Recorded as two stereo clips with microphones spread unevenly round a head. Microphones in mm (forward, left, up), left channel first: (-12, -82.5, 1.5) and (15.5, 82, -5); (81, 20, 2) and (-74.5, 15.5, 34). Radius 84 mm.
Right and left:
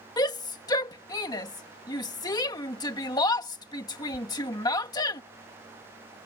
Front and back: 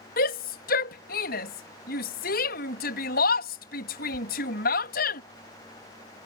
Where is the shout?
30° right.